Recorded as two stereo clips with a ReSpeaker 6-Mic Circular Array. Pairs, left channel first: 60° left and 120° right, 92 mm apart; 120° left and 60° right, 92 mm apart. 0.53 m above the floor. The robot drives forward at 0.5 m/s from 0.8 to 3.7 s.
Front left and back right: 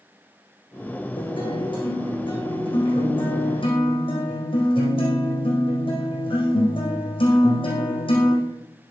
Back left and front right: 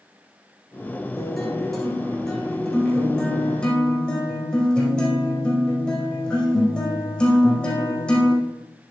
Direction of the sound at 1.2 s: 30° left.